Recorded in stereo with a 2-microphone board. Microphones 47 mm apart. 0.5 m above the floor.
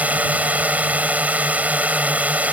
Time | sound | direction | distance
0.0 | a drone | 35° right (ahead or behind) | ?